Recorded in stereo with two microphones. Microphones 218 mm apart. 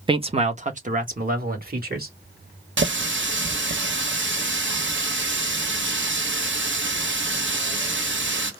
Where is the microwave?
I don't hear a microwave.